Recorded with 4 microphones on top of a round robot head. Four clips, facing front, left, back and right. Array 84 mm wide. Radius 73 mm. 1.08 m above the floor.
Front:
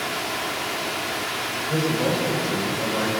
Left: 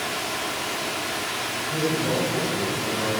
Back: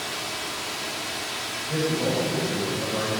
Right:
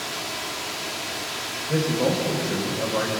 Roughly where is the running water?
Ahead left.